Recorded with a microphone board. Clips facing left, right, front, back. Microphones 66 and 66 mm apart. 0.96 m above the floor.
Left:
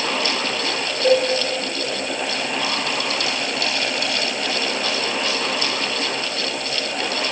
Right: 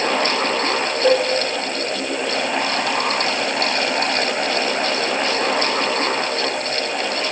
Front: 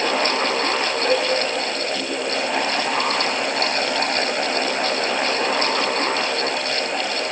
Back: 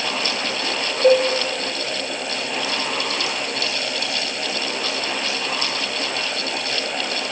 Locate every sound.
1.0 s a cowbell: 160° right, 0.9 m